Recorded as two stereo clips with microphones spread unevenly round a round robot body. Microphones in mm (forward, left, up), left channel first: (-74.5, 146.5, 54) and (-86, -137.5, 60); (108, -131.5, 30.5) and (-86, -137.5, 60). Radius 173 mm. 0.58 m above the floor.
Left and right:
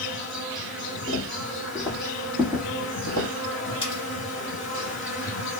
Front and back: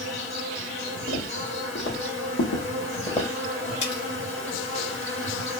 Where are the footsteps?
30° left, 1.4 m; by 3.3 s 60° right, 0.9 m.